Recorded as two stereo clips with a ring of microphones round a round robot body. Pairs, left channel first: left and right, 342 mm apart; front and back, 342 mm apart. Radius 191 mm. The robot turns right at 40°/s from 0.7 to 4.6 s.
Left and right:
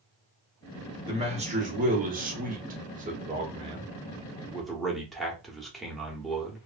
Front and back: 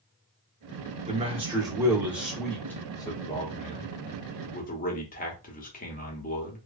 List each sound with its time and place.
1.1 s a man speaking: 140° right, 1.0 m; by 6.6 s straight ahead, 1.0 m